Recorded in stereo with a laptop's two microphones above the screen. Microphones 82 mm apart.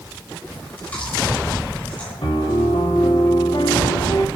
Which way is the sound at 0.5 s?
15° left (ahead or behind).